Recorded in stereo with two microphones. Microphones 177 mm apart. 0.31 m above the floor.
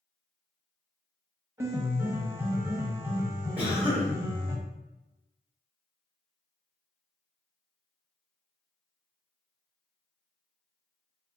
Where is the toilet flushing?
I don't hear a toilet flushing.